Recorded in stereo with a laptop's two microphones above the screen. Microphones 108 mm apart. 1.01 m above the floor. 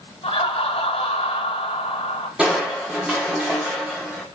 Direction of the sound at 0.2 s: 55° left (ahead or behind).